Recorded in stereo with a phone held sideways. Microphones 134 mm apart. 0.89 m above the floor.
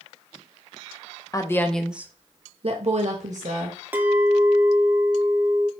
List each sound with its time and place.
1.3 s a woman speaking: 25° left (ahead or behind), 0.7 m; by 3.8 s 70° right (ahead or behind), 1.2 m
3.9 s a clink: 15° right (ahead or behind), 0.6 m